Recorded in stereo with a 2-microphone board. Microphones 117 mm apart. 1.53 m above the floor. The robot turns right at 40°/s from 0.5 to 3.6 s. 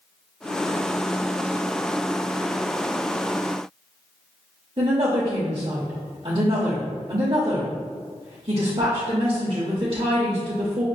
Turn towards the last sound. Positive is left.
turn(degrees=-45)  # may be behind; listen again after turning